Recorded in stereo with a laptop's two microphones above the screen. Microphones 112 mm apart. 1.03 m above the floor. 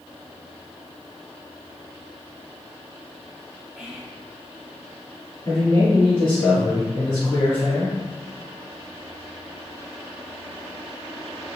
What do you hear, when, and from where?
3.8 s whispering: 5° right (ahead or behind), 3 m
5.5 s a man speaking: 30° left (ahead or behind), 1.9 m